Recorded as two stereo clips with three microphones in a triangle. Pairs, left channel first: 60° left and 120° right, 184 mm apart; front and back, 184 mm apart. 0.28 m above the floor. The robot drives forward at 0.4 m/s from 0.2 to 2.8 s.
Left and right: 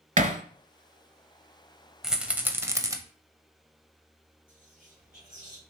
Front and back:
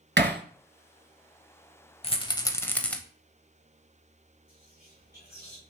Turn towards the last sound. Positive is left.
turn(degrees=-150)